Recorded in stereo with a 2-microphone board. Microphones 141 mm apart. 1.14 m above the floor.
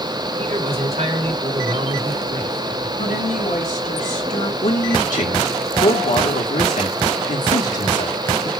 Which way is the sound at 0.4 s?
50° right (ahead or behind).